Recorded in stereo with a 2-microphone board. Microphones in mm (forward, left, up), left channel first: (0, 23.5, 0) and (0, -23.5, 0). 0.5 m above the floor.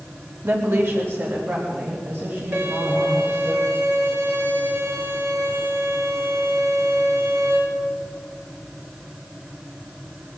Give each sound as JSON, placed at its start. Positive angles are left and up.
{"t": 0.4, "sound": "a woman speaking", "side_deg": -60, "distance_m": 1.8}
{"t": 2.5, "sound": "a violin", "side_deg": -45, "distance_m": 6.0}